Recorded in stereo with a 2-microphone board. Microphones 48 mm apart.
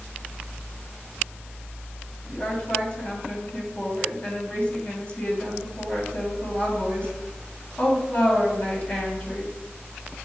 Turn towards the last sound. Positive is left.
turn(degrees=30)  # may be behind; listen again after turning